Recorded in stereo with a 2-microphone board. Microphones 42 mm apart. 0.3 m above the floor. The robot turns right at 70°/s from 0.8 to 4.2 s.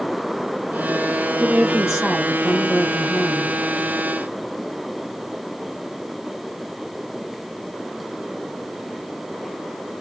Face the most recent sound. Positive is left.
turn(degrees=150)